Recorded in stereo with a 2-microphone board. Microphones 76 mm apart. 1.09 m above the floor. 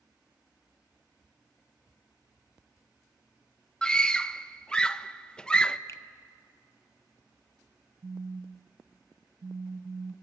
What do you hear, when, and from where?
3.8 s a scream: 10° left (ahead or behind), 0.6 m
5.9 s a finger snap: 40° left (ahead or behind), 0.7 m
8.0 s a phone buzzing: 75° right (ahead or behind), 0.6 m